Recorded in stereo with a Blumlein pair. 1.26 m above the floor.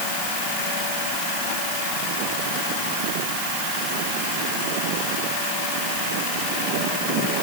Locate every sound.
Only background noise.